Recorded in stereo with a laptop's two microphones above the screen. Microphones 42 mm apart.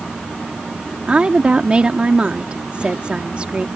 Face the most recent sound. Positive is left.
turn(degrees=-30)  # may be behind; listen again after turning